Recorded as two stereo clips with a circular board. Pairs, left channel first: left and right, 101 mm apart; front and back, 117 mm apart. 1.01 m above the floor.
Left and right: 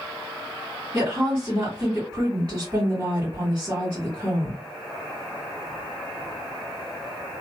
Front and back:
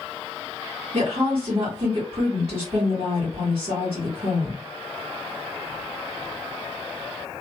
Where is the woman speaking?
155° right, 1.5 m.